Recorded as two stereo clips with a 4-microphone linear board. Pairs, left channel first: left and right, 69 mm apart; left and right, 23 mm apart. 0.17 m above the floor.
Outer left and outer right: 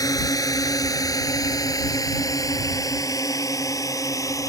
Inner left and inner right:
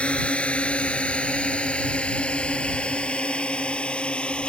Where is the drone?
60° left (ahead or behind); by 4.5 s 55° left (ahead or behind).